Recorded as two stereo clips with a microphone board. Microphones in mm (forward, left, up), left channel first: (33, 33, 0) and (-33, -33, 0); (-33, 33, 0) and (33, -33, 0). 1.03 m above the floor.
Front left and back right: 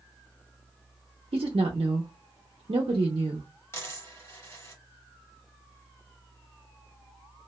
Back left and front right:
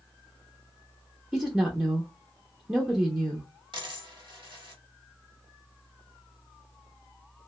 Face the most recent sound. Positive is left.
turn(degrees=-15)